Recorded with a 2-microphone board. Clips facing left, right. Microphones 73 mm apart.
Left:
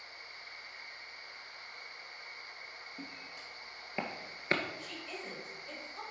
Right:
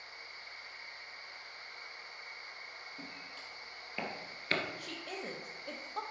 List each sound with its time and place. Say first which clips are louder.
3.0 s footsteps: left 1 dB; 15° left (ahead or behind), 2.5 m; by 4.6 s 25° left (ahead or behind), 1.0 m
4.8 s a woman speaking: right 1 dB; 65° right (ahead or behind), 1.3 m